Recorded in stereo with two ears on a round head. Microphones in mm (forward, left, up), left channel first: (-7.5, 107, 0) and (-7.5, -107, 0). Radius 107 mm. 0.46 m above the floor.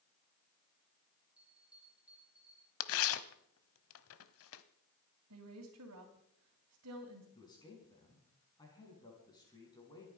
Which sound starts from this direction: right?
A woman speaking, at 5.3 s.